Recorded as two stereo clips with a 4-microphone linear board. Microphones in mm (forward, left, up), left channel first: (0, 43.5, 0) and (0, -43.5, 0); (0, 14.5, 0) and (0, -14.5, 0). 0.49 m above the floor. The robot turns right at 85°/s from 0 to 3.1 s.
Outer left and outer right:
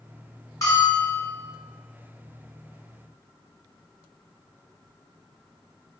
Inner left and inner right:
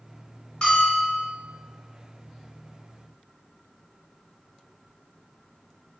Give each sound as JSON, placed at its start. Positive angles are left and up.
{"t": 0.6, "sound": "a bell", "azimuth_deg": 45, "distance_m": 1.2}